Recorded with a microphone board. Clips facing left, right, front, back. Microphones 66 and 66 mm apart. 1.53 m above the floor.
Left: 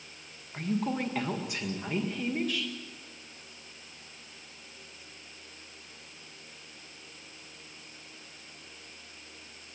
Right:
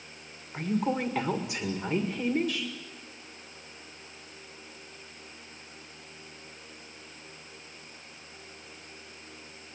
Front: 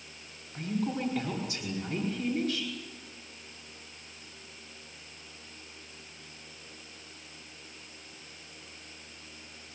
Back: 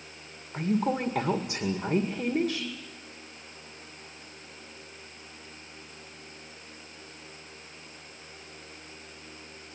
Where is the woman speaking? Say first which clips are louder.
Right 2 dB, back 5 dB; 175° right, 1.9 m.